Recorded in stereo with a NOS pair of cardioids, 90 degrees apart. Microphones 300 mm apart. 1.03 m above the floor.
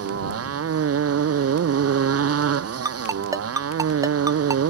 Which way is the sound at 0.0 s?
50° right.